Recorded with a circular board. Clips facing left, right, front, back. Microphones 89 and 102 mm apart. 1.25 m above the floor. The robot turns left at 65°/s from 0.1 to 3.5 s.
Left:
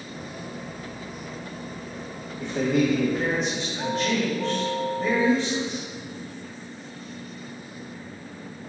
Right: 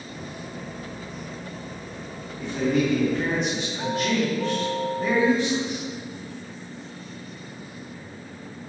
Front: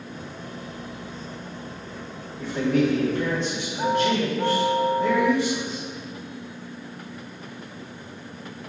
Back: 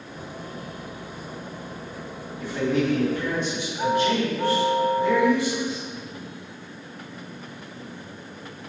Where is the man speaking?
80° left, 1.9 m; by 5.8 s 5° left, 1.9 m.